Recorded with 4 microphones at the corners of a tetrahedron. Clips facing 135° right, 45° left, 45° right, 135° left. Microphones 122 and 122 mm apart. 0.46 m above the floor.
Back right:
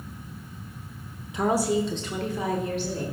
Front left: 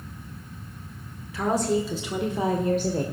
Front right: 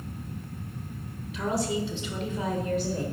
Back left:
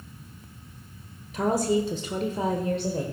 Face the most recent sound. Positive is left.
turn(degrees=70)